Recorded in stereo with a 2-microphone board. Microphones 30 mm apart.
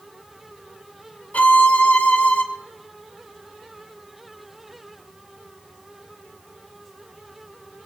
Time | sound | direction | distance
1.3 | a violin | 55° left (ahead or behind) | 2 m